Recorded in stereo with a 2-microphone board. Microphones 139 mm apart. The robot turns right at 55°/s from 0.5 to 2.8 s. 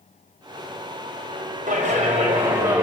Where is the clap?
70° right, 5.5 m; by 2.8 s 5° right, 5.5 m.